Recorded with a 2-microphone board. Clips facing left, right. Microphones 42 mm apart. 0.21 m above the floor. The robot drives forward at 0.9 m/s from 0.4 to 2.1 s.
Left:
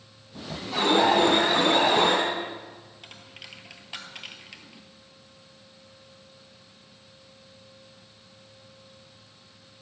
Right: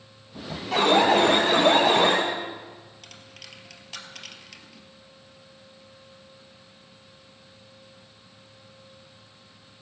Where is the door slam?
No door slam in this recording.